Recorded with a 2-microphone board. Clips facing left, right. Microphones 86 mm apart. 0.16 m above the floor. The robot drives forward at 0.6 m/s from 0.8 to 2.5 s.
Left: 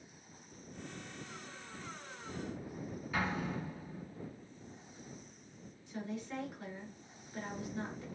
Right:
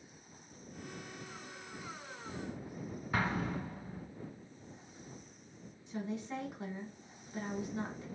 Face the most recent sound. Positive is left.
turn(degrees=-20)  # may be behind; listen again after turning